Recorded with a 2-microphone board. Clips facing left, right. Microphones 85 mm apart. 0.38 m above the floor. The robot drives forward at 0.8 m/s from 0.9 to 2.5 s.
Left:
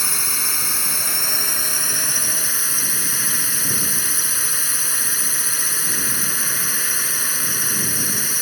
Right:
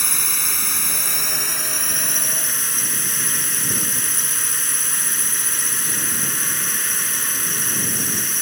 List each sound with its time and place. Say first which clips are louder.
0.0 s a drone: left 1 dB; 5° left (ahead or behind)